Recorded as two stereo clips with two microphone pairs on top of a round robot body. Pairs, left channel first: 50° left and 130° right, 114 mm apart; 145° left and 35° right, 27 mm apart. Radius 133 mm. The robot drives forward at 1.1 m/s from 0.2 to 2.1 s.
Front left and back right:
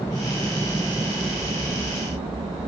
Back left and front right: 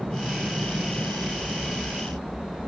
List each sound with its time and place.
0.0 s an aircraft: 15° right; by 2.7 s 130° right